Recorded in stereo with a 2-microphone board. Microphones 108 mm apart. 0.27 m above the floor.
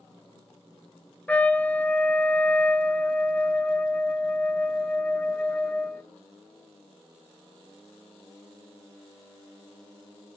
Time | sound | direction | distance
1.3 | a trumpet | 15° left (ahead or behind) | 0.6 m